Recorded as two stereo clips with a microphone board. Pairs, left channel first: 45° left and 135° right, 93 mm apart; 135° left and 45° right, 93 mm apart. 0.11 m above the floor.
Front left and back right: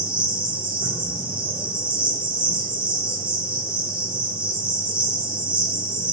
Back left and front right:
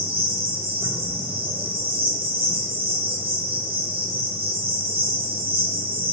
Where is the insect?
60° right, 1.1 m.